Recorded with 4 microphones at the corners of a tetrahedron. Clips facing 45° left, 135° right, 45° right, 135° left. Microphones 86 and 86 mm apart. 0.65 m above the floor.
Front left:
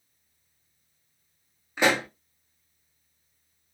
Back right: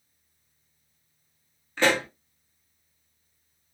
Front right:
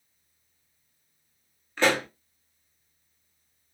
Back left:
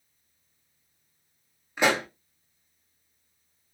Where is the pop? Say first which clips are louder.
Even, even; 90° left, 0.7 m.